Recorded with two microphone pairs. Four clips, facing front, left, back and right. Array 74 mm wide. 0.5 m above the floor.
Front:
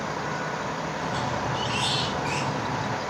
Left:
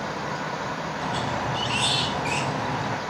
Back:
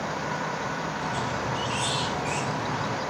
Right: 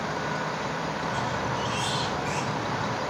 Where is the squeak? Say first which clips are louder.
Left 3 dB, front 3 dB; 60° left, 1.4 m.